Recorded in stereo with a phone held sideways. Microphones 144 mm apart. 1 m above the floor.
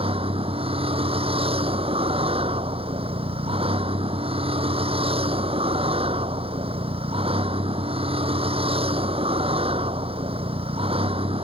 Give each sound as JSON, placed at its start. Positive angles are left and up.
{"t": 0.0, "sound": "a vehicle", "side_deg": -40}